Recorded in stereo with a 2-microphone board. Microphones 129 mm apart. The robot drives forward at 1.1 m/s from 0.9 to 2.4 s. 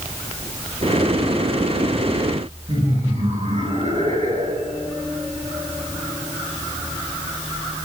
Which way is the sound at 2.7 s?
70° right (ahead or behind).